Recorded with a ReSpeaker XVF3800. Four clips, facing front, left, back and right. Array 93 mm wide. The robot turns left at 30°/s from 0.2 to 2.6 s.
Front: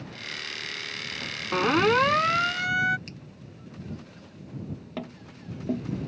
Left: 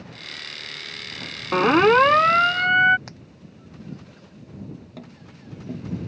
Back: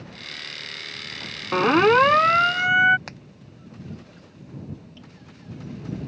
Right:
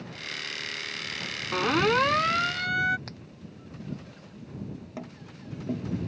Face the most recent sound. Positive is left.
turn(degrees=-20)